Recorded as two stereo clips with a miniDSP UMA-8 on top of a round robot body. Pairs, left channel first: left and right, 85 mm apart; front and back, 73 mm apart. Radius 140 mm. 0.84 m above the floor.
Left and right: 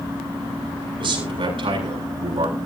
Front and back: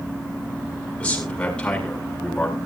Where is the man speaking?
75° right, 7 m; by 2.6 s 80° right, 7.5 m.